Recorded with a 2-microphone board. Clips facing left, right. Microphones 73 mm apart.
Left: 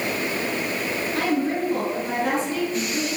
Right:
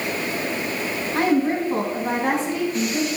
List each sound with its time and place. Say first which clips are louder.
1.1 s a woman speaking: right 4 dB; 40° right (ahead or behind), 1.9 m